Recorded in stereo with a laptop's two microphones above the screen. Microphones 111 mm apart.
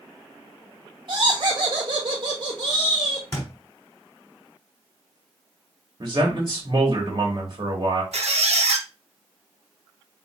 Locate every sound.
1.1 s laughter: 55° right (ahead or behind), 0.8 m
3.3 s a thud: 25° left (ahead or behind), 1.3 m
6.0 s a man speaking: 40° right (ahead or behind), 1.1 m
8.1 s a squeak: 80° right, 0.6 m